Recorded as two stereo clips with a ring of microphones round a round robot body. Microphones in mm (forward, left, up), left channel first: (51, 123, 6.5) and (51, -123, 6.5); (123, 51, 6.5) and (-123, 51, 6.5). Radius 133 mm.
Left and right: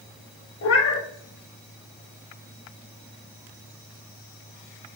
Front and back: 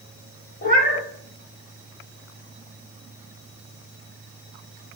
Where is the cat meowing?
60° left, 0.6 m.